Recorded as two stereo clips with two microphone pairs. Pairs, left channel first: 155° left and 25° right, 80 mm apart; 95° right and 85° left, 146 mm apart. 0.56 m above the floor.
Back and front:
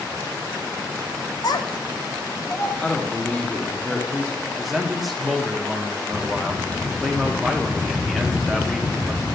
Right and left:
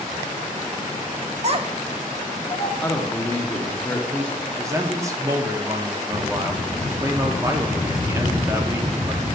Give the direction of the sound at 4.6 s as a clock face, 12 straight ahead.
10 o'clock.